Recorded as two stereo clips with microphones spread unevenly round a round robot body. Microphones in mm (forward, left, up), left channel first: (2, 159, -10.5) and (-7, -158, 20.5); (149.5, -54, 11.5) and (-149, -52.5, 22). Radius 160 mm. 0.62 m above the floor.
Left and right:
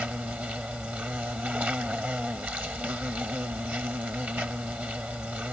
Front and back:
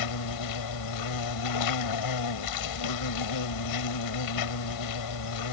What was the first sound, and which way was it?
An insect, 5° right.